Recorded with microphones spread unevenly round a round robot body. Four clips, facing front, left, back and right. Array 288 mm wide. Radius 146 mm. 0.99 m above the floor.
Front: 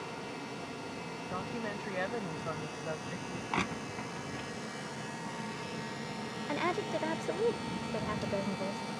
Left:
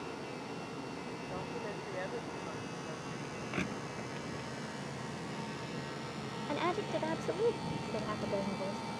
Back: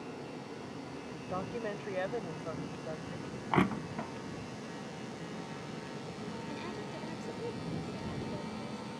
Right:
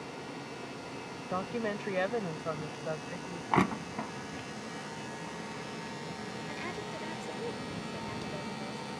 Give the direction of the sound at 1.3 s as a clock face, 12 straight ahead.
3 o'clock.